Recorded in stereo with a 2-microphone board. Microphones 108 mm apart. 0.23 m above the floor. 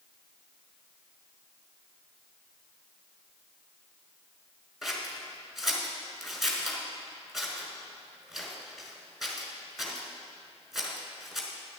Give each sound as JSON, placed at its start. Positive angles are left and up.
{"t": 4.8, "sound": "scissors", "side_deg": 0, "distance_m": 1.6}